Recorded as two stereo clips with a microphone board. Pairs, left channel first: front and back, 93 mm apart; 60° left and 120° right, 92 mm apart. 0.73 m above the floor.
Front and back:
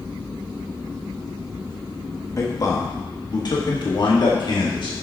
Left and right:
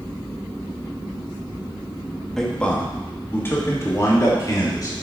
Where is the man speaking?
20° right, 1.3 m; by 4.9 s 20° left, 2 m.